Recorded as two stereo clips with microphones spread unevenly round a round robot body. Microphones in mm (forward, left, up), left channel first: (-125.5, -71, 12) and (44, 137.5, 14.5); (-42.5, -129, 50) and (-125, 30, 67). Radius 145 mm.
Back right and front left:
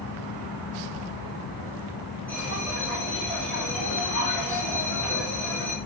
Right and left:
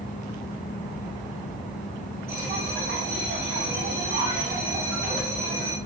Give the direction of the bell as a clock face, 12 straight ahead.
7 o'clock.